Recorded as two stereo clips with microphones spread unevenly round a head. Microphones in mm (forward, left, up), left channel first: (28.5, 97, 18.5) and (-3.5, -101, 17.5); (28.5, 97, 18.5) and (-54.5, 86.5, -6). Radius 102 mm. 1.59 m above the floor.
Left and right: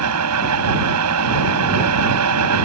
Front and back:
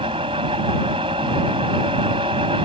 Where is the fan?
105° right.